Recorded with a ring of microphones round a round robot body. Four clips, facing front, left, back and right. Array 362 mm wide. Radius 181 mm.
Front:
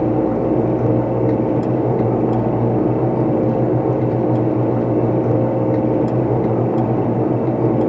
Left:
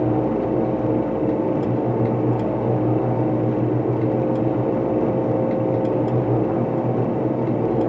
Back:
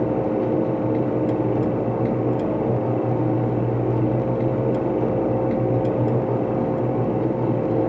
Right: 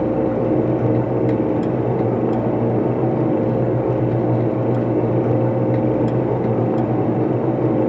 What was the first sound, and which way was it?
Only background noise.